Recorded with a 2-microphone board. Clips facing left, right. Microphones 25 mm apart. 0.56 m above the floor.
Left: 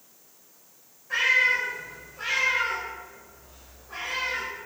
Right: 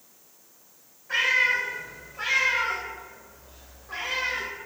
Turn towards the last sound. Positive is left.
turn(degrees=-35)  # may be behind; listen again after turning